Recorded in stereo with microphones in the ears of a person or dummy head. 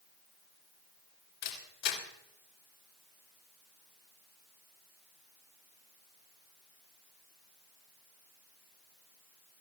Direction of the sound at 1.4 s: 60° left (ahead or behind).